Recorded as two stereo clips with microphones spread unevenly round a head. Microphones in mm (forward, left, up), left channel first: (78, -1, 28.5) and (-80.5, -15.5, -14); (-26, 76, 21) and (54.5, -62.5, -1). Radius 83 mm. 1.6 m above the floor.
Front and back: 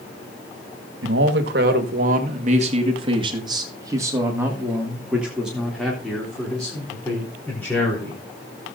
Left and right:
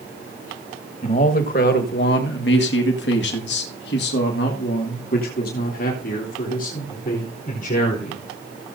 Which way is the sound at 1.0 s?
165° left.